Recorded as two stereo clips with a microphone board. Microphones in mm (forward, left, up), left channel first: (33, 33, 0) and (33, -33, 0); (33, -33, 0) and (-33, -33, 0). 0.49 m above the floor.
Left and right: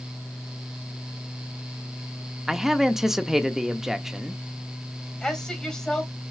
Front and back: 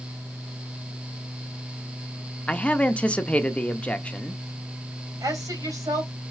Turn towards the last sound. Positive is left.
turn(degrees=170)